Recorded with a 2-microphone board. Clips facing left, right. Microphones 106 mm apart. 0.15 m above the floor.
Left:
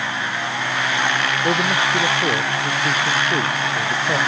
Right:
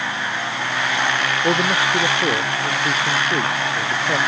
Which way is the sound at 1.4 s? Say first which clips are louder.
Right 1 dB; 10° right (ahead or behind).